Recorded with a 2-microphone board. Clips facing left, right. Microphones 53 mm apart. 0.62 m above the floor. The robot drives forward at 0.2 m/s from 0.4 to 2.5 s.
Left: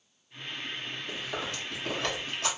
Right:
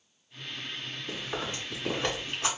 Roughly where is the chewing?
Centre.